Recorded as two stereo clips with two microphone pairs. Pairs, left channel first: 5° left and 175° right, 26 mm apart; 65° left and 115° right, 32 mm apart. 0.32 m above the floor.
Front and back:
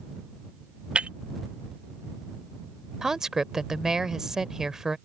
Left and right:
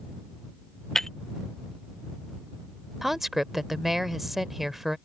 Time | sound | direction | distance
0.9 | breaking glass | 140° left | ?
3.0 | a woman speaking | straight behind | ?